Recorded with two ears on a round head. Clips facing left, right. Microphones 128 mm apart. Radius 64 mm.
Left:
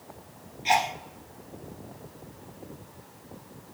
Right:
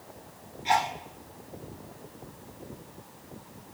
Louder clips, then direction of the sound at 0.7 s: Left 1 dB; 25° left (ahead or behind).